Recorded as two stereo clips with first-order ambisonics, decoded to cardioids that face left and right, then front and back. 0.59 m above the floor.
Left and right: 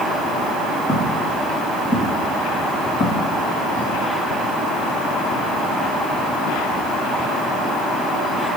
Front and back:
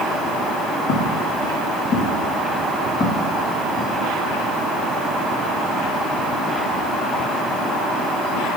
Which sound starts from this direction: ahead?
Footsteps, at 0.9 s.